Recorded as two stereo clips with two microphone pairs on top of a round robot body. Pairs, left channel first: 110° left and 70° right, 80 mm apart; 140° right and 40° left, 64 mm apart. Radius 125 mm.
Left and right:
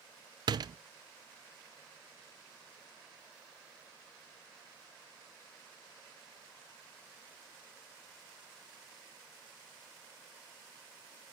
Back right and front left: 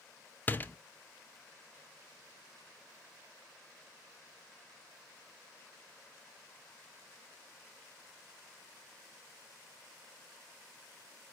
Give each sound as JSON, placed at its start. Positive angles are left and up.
{"t": 0.5, "sound": "a door slam", "azimuth_deg": -75, "distance_m": 0.8}